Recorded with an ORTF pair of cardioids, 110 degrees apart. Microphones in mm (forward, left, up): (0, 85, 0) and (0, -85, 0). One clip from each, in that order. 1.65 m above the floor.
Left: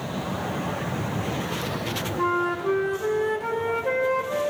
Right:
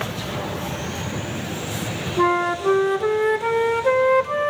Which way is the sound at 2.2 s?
40° right.